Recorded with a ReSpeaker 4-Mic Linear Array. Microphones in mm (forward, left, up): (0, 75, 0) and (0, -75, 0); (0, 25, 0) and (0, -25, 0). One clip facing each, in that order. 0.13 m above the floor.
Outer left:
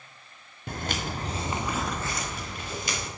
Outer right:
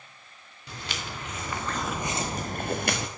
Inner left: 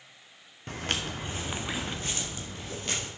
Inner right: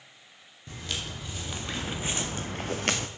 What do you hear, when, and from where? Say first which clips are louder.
0.7 s footsteps: outer left 6 dB, inner left 4 dB; 55° left (ahead or behind), 1.3 m; by 3.1 s 65° right (ahead or behind), 1.2 m